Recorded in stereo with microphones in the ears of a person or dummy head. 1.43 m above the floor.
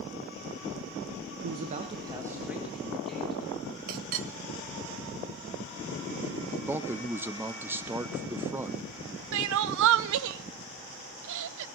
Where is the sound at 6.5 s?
10° right (ahead or behind), 0.6 m.